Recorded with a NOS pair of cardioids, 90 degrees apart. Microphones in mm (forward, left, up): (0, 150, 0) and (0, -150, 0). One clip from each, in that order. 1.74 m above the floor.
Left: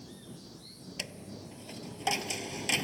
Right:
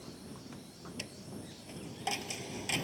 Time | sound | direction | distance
1.0 | a dropped coin | 40° left | ?